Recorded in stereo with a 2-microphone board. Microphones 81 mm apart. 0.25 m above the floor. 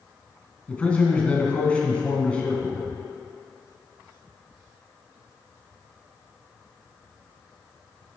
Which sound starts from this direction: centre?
A man speaking, at 0.7 s.